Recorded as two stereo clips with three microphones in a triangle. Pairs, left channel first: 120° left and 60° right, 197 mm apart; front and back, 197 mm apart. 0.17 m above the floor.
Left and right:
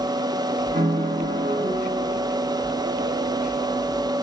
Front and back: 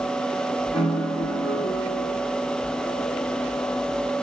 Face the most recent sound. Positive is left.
turn(degrees=-85)